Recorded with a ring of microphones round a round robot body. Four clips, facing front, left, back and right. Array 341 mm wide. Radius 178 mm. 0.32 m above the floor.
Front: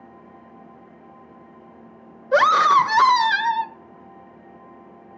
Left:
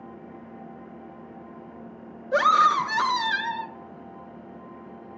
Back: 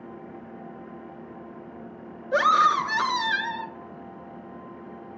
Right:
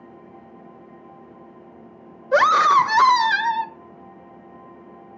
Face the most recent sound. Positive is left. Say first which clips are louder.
# right 4 dB, front 5 dB
turn(degrees=-45)